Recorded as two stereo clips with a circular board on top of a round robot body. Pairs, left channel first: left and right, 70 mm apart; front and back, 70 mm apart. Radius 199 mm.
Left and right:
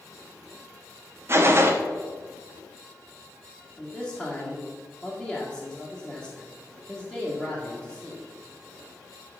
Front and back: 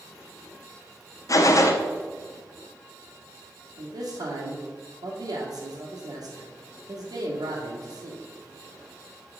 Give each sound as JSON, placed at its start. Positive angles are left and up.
{"t": 1.3, "sound": "a gunshot", "azimuth_deg": -40, "distance_m": 0.9}
{"t": 3.8, "sound": "a man speaking", "azimuth_deg": -170, "distance_m": 1.9}